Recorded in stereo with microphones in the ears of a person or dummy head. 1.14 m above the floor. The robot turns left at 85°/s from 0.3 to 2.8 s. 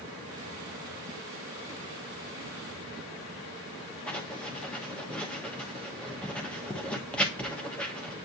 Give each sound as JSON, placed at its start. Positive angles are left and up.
{"t": 4.1, "sound": "writing", "side_deg": 5, "distance_m": 1.1}